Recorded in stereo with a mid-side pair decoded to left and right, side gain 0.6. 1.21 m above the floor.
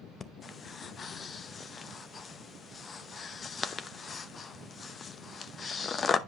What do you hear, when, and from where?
0.2 s breathing: 35° left, 0.8 m